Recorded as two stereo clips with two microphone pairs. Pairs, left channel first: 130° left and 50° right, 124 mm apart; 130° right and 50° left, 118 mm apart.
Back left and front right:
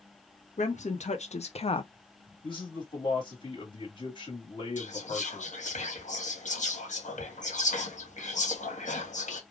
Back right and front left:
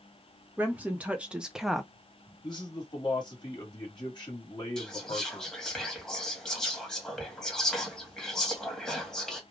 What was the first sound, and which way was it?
A woman speaking, 125° left.